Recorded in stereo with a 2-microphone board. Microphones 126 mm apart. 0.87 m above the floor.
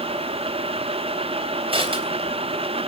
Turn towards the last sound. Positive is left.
turn(degrees=-45)  # may be behind; listen again after turning